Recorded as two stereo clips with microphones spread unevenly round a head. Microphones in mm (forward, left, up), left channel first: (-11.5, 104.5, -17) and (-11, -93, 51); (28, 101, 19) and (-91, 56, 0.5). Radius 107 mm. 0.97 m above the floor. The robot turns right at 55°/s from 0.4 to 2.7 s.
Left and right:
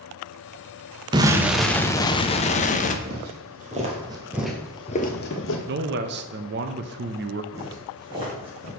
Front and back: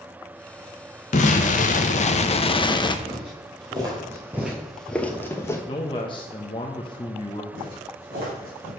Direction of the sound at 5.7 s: 45° right.